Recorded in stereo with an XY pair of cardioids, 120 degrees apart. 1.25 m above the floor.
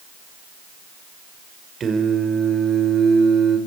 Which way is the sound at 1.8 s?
40° right.